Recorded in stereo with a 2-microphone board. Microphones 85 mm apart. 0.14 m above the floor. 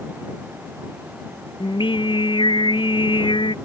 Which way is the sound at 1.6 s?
75° left (ahead or behind).